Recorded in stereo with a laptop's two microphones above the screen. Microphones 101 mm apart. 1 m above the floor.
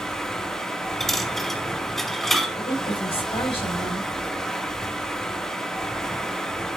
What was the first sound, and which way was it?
Running water, 5° left (ahead or behind).